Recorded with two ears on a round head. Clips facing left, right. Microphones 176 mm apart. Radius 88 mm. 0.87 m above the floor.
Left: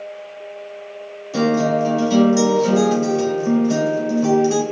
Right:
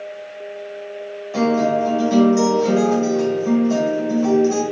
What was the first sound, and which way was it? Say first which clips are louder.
A guitar: even; 50° left (ahead or behind).